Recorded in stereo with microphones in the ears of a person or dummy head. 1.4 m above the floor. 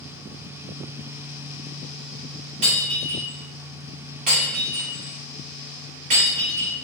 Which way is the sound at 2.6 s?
45° right (ahead or behind).